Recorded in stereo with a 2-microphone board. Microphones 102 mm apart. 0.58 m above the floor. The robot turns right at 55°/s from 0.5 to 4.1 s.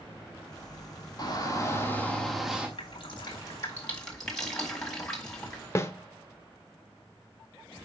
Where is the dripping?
60° left (ahead or behind), 1.7 m; by 5.6 s 5° left (ahead or behind), 1.7 m.